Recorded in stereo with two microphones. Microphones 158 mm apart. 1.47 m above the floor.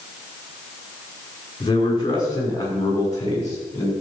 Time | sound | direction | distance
1.6 | a man speaking | 30° left (ahead or behind) | 5 m